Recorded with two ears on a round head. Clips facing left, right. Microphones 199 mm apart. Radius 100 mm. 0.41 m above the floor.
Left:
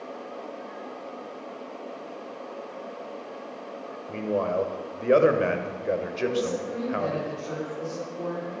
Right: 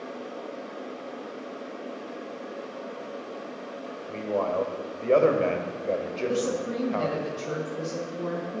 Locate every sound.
4.1 s a man speaking: 20° left (ahead or behind), 1.7 m
6.3 s a woman speaking: 50° right (ahead or behind), 2.5 m